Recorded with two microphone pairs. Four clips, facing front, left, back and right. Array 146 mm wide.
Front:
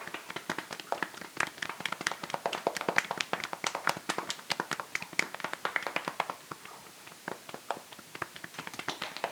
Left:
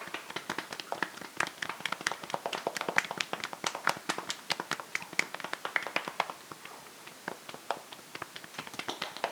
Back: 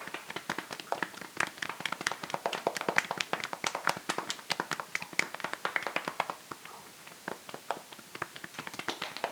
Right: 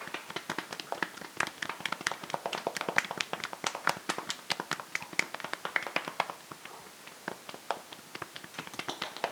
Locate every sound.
Only background noise.